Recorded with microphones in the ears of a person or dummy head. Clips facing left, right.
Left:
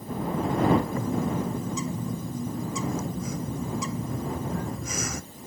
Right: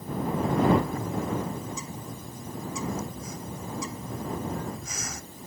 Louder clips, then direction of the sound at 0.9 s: Left 3 dB; 65° left (ahead or behind).